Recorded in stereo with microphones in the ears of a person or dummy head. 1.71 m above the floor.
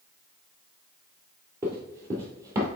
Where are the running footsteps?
15° right (ahead or behind), 1.8 m; by 2.7 s 25° right (ahead or behind), 2 m.